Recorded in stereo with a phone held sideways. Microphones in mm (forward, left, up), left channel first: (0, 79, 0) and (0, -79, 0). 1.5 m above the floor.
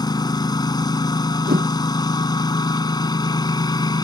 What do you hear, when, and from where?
0.0 s a lawn mower: 25° left (ahead or behind)
1.5 s a whoosh: 70° right (ahead or behind)